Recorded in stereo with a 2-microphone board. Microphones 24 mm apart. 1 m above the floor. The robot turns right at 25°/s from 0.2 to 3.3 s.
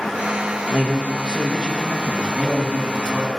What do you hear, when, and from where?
0.7 s a man speaking: 60° right, 1.1 m; by 2.2 s 25° right, 1.1 m
2.3 s a man speaking: 10° right (ahead or behind), 1.3 m; by 3.3 s 35° right (ahead or behind), 1.3 m